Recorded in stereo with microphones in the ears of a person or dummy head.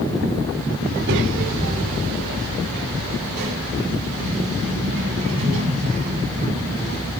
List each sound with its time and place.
0.9 s a child speaking: 60° right (ahead or behind), 2.5 m